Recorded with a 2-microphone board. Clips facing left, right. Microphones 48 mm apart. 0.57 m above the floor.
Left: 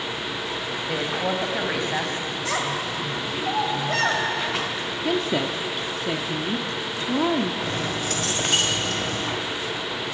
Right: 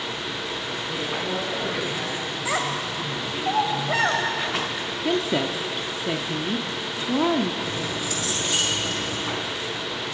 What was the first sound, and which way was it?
A woman speaking, 70° left (ahead or behind).